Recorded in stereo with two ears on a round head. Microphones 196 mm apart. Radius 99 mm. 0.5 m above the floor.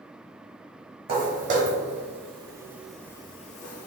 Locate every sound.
1.1 s footsteps: 35° right (ahead or behind), 1.4 m; by 3.9 s 45° left (ahead or behind), 0.6 m